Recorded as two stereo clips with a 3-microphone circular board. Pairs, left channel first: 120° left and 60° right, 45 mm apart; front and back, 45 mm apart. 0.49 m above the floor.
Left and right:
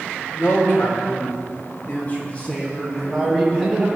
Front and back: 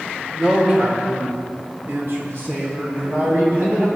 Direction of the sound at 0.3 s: 110° left.